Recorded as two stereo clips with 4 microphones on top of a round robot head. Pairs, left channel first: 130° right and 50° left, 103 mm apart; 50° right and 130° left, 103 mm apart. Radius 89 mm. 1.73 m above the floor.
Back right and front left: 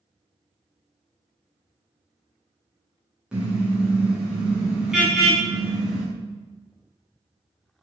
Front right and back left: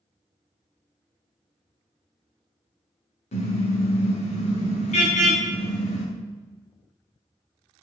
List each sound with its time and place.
3.3 s a car horn: 35° right, 7.5 m; by 6.1 s 40° right, 5 m